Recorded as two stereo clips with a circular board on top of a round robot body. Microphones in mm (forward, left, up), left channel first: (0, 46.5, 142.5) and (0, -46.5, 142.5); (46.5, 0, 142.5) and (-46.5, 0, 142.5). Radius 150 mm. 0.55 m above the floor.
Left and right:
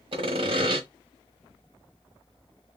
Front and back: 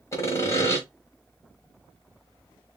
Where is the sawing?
60° right, 1.2 m.